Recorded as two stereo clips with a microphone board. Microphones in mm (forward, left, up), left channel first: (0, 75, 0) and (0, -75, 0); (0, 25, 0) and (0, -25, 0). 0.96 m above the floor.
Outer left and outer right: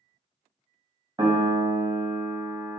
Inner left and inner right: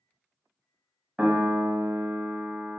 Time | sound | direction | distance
1.2 | a piano | 25° right (ahead or behind) | 0.5 m